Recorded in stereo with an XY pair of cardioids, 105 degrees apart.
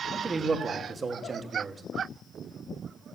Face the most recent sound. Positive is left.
turn(degrees=-30)